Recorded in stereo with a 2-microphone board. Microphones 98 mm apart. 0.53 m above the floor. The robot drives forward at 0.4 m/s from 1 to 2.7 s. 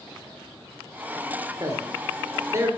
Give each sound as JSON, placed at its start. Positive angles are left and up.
{"t": 1.6, "sound": "a man speaking", "side_deg": -40, "distance_m": 1.7}